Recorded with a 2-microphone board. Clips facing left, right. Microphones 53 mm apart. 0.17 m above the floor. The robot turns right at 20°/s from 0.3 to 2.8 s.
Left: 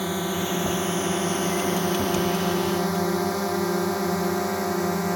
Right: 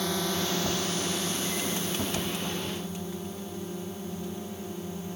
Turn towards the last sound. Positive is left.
turn(degrees=80)